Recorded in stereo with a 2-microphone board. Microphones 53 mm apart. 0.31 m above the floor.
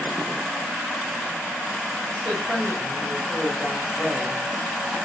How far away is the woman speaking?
About 1.3 m.